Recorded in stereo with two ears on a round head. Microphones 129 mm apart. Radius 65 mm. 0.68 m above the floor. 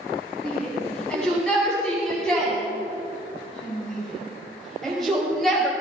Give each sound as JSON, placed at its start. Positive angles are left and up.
{"t": 0.4, "sound": "a shout", "side_deg": 5, "distance_m": 8.0}